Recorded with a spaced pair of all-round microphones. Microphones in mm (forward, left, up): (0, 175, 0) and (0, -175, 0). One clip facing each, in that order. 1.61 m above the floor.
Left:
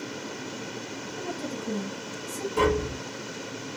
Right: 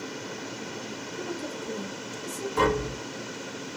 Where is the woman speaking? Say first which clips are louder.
Left 1 dB; 80° left, 1.6 m.